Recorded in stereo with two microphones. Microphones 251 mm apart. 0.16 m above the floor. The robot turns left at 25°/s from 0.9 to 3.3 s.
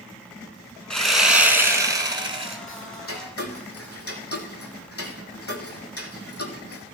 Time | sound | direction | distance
0.9 | sawing | 5° left | 1.3 m
2.7 | ticking | 55° left (ahead or behind) | 1.4 m